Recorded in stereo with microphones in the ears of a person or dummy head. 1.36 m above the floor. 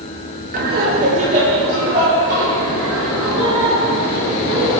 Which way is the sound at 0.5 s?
45° right (ahead or behind).